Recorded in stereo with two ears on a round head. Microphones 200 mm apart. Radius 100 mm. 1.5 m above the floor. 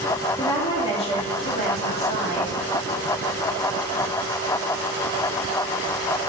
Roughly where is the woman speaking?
Centre.